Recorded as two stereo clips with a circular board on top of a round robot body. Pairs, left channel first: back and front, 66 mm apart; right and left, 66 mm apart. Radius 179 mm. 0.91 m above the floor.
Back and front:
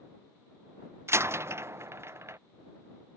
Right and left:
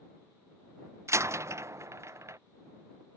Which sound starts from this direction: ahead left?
A door slam, at 1.1 s.